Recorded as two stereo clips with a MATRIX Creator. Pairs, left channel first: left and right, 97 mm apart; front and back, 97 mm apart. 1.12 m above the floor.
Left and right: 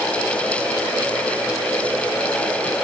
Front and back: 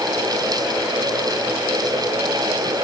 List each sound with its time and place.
Only background noise.